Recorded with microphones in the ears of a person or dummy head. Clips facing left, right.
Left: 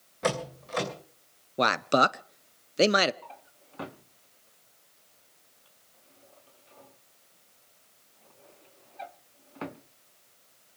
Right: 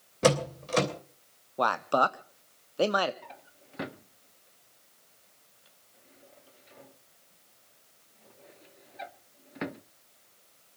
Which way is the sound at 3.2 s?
20° right (ahead or behind).